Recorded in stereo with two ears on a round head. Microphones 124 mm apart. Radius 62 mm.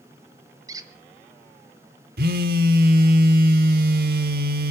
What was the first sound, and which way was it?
A squeak, 25° right (ahead or behind).